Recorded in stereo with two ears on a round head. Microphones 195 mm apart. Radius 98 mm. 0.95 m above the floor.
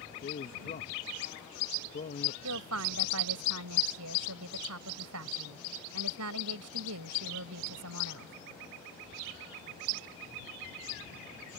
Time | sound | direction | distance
0.2 | a man speaking | 40° left (ahead or behind) | ?
2.4 | a woman speaking | 80° right | ?